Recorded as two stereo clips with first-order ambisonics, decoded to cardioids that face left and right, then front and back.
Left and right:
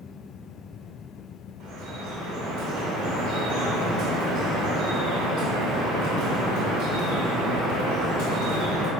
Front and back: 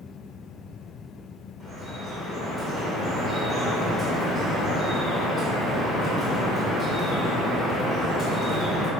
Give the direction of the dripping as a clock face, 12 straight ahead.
3 o'clock.